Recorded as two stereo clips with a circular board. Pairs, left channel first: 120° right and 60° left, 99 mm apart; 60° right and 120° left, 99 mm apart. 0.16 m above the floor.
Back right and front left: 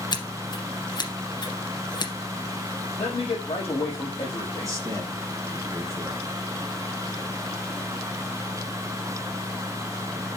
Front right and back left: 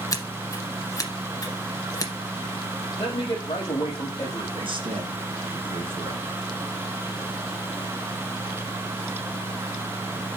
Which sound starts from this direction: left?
A man speaking, at 4.6 s.